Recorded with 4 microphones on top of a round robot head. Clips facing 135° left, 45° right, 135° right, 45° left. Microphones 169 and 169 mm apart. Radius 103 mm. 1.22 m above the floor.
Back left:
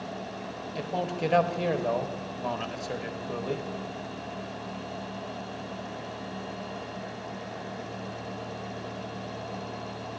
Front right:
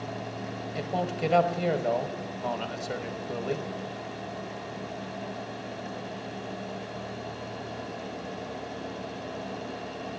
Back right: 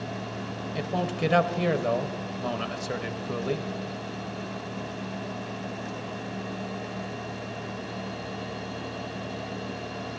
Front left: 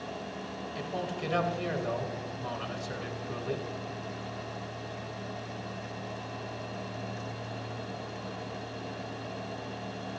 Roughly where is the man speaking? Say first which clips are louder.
Even, back right 7 dB; behind right.